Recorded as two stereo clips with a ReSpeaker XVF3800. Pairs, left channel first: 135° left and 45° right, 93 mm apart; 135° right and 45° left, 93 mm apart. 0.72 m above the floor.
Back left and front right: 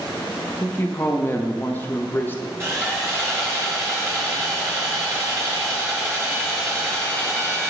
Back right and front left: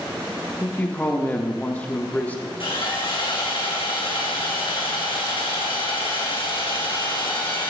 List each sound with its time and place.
0.6 s a man speaking: 170° left, 0.6 m
2.6 s sawing: 105° right, 3 m